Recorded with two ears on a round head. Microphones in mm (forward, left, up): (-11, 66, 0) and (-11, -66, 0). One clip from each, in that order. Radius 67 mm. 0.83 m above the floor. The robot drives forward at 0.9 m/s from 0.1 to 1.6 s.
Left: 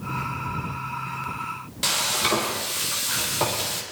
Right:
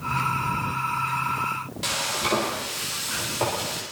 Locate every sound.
1.8 s frying: 25° left (ahead or behind), 4.5 m